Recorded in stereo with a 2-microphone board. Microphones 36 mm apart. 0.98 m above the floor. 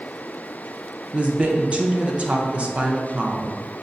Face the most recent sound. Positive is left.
turn(degrees=-35)  # may be behind; listen again after turning